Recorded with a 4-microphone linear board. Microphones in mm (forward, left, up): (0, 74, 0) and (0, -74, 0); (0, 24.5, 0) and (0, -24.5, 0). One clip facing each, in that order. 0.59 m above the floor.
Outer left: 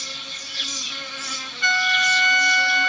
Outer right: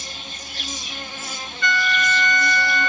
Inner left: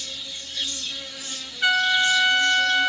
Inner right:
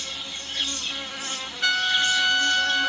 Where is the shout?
I don't hear a shout.